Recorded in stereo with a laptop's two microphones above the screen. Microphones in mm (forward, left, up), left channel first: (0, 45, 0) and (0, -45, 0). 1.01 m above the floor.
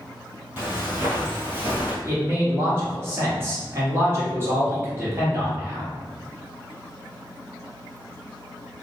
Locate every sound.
0.6 s footsteps: 25° right (ahead or behind), 1.3 m; by 1.9 s 20° right (ahead or behind), 1.1 m
2.0 s a man speaking: 30° right (ahead or behind), 1.5 m